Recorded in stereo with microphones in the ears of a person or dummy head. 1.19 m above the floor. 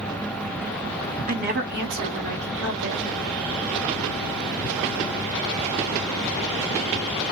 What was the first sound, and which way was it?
A woman speaking, 40° right (ahead or behind).